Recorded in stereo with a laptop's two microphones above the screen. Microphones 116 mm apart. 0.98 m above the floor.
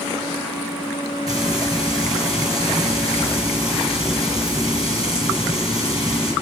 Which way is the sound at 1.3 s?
30° right (ahead or behind).